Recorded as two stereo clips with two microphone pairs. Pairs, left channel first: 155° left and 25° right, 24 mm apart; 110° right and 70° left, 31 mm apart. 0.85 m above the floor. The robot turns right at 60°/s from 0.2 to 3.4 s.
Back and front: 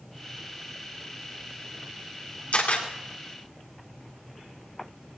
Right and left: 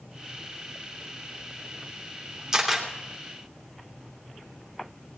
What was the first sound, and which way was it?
A camera shutter, 140° left.